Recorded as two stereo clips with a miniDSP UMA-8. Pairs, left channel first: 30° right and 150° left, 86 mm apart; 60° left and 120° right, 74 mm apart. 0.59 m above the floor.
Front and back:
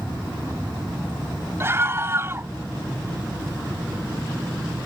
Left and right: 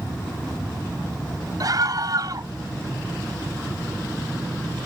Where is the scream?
150° right.